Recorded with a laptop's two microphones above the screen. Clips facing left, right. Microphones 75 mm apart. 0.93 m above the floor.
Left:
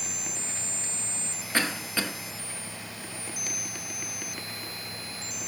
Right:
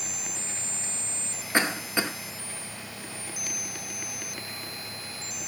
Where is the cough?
20° right (ahead or behind), 0.6 m.